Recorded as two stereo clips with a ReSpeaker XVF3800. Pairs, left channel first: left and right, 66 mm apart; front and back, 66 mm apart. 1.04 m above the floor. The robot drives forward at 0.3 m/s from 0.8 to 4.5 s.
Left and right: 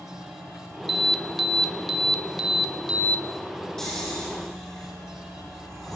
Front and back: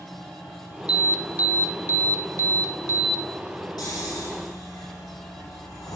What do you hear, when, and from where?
0.9 s an alarm: straight behind, 0.6 m
3.8 s snoring: 10° left, 7.5 m